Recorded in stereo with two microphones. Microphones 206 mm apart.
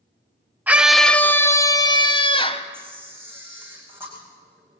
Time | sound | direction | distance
0.7 | a scream | 10° right (ahead or behind) | 0.9 m
2.7 | a camera shutter | 10° right (ahead or behind) | 5.5 m